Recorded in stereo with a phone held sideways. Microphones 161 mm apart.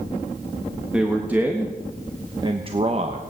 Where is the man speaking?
5° right (ahead or behind), 1.6 m; by 3.2 s 45° right (ahead or behind), 1.0 m.